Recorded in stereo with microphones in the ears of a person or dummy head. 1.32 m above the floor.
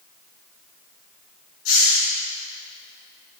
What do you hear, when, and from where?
1.6 s a hiss: 85° left, 6.5 m